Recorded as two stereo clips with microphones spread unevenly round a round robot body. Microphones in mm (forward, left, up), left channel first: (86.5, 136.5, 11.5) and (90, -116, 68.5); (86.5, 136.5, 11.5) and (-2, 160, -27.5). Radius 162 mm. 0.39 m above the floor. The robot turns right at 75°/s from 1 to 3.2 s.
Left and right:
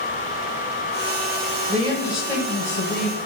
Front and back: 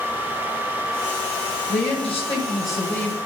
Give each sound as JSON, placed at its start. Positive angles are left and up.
{"t": 1.7, "sound": "a man speaking", "azimuth_deg": -25, "distance_m": 2.0}